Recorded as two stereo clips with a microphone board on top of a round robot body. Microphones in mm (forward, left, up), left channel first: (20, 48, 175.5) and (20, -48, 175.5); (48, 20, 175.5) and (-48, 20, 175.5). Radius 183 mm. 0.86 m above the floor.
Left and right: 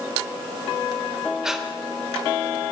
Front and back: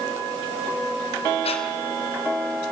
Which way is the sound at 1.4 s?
5° right.